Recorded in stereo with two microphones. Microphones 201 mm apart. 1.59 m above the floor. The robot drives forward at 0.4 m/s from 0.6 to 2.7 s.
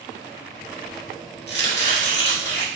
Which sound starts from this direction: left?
Chopping, at 1.5 s.